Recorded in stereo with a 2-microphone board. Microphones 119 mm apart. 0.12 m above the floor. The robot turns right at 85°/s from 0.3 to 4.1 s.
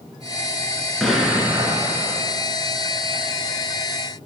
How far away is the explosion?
About 0.9 m.